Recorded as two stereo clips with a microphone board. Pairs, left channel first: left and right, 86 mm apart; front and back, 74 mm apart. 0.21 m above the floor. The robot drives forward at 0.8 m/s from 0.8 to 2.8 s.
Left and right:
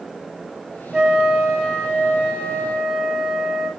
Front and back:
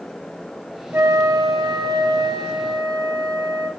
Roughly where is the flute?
Behind.